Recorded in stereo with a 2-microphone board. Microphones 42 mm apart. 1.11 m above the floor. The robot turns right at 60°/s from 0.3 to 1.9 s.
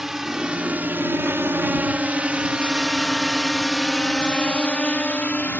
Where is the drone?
10° right (ahead or behind); by 5.6 s 40° left (ahead or behind).